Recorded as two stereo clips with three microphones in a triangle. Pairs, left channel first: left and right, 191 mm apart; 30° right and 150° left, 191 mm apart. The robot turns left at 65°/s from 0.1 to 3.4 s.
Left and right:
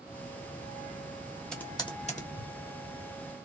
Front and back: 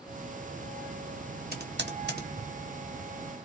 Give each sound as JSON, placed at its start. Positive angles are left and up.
{"t": 1.5, "sound": "typing on a keyboard", "azimuth_deg": 175, "distance_m": 1.1}